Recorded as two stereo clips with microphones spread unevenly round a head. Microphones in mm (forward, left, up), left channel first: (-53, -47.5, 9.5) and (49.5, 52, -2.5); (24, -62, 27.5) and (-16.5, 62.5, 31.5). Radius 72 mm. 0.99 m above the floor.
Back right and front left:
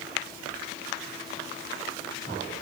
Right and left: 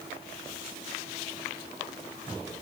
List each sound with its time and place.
Only background noise.